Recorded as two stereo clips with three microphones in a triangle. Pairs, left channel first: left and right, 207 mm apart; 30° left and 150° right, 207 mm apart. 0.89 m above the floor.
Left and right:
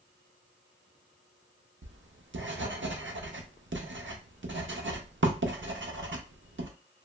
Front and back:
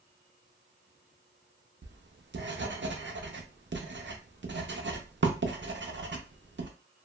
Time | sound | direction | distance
1.8 | writing | 115° right | 0.5 m